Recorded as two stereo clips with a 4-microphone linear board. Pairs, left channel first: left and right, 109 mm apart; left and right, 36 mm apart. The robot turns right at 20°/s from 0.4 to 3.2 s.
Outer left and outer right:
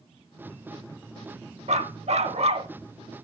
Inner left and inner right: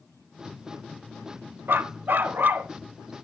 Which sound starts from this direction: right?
A dog barking, at 1.7 s.